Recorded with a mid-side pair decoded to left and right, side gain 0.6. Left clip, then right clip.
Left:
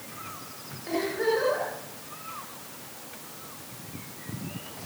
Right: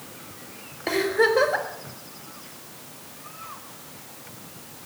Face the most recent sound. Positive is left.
turn(degrees=-60)